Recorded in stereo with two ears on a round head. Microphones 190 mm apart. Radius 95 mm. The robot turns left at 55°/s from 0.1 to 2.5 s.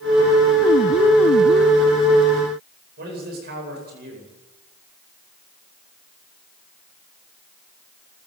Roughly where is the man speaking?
Right.